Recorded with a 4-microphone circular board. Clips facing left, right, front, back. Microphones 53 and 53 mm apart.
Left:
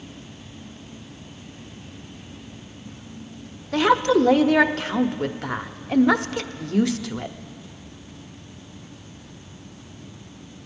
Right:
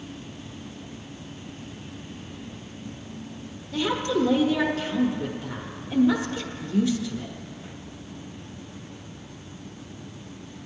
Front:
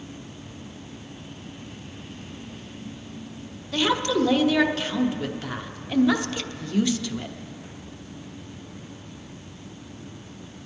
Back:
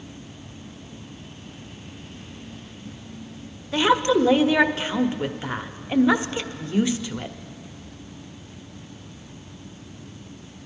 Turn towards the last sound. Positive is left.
turn(degrees=115)